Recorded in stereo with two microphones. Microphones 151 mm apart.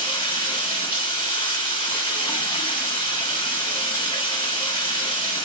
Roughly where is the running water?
Left.